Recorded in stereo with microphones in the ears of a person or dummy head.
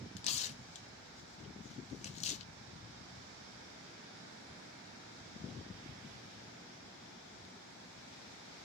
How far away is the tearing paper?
About 0.7 m.